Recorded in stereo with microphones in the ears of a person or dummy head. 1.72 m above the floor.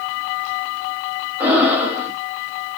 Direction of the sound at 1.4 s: 10° right (ahead or behind).